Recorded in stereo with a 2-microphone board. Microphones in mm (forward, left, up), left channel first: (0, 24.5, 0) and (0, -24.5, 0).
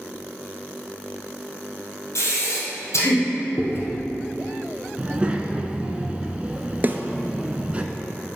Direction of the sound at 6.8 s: 35° right (ahead or behind).